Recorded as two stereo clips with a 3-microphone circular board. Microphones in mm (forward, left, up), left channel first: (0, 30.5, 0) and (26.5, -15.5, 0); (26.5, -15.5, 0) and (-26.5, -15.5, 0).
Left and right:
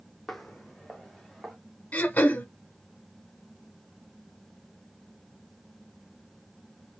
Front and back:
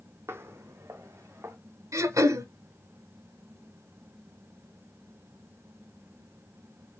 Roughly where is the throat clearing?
Behind.